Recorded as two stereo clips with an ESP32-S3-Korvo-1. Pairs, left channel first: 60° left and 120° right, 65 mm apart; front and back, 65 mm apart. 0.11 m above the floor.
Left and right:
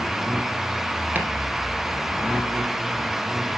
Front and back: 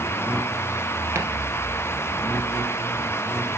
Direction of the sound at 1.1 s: 170° right.